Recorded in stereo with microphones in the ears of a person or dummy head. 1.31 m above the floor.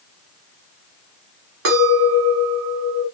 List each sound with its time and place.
1.6 s a clink: 75° right (ahead or behind), 1.5 m